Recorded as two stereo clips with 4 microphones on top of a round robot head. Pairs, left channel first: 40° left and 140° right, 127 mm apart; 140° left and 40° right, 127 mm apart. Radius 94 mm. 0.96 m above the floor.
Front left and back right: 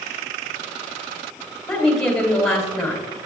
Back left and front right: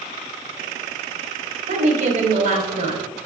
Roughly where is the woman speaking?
Ahead right.